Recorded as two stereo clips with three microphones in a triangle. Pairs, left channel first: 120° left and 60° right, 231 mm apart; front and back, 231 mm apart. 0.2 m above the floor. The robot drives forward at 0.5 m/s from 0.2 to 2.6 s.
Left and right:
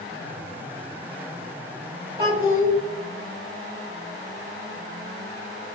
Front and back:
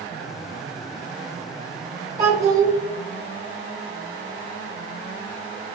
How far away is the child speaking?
About 1.9 m.